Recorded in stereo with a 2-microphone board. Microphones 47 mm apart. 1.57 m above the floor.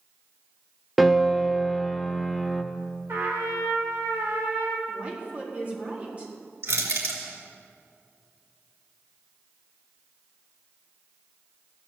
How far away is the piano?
About 0.8 m.